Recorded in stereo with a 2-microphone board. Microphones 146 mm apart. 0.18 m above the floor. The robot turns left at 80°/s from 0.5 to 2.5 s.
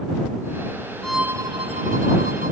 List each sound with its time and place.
1.0 s a violin: 5° left; by 2.5 s 110° right